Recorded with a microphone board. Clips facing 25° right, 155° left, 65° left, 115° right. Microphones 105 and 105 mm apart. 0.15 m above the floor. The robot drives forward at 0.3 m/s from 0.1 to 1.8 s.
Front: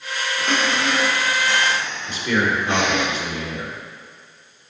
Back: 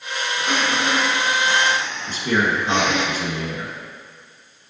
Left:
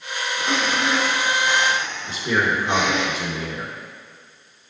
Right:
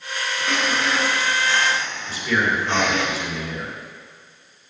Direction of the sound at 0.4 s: 90° left.